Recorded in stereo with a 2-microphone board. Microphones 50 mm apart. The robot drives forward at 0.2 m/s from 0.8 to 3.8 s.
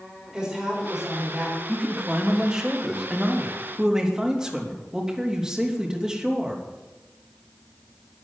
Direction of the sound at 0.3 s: 15° right (ahead or behind).